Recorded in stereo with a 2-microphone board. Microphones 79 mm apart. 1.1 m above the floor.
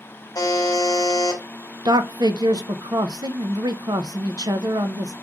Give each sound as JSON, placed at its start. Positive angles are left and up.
{"t": 0.3, "sound": "a buzzer", "side_deg": 55, "distance_m": 1.5}
{"t": 1.9, "sound": "a man speaking", "side_deg": -60, "distance_m": 0.7}